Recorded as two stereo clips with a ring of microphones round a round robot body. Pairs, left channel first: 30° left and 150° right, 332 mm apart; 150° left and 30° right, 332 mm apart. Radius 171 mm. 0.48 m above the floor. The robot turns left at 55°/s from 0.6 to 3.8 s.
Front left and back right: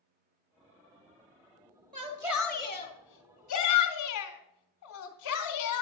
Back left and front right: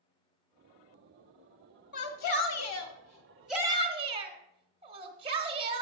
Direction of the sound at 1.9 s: 140° left.